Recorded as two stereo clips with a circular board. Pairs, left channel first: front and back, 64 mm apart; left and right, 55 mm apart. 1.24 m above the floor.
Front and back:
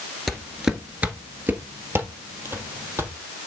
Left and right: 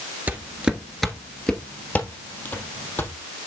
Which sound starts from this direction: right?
Footsteps, at 0.3 s.